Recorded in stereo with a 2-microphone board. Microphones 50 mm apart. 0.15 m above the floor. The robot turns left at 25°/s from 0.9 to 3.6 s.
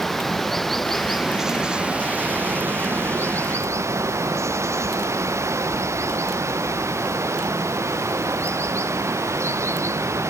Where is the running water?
5° left; by 10.3 s 65° right.